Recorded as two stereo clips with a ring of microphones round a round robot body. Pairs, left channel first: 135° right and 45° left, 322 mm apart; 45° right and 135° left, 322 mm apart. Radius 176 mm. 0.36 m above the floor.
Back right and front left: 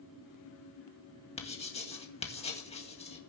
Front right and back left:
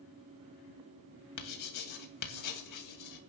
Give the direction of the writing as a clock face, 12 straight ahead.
2 o'clock.